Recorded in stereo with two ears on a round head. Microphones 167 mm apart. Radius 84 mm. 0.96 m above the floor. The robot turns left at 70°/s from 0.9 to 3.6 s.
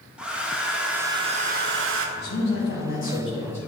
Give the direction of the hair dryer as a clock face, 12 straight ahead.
12 o'clock.